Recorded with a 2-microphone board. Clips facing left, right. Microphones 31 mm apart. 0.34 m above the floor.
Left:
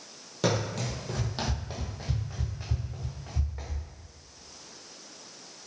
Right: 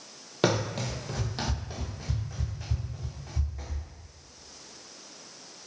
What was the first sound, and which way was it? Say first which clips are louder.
Running footsteps: right 2 dB; 40° right (ahead or behind).